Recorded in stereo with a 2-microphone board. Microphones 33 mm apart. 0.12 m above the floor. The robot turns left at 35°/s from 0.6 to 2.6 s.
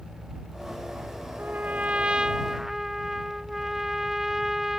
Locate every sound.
1.4 s a trumpet: 125° right; by 4.8 s 170° right